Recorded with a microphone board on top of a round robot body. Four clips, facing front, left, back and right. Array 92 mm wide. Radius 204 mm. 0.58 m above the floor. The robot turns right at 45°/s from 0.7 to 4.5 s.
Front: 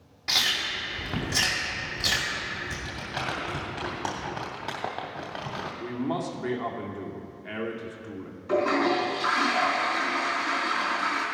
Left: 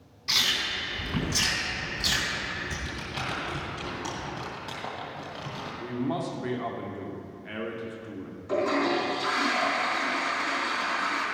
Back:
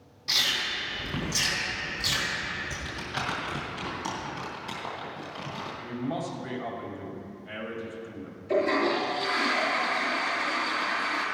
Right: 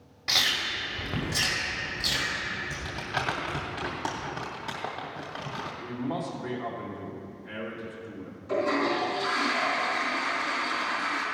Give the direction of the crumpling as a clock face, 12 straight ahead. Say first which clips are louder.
Right 3 dB, even; 3 o'clock.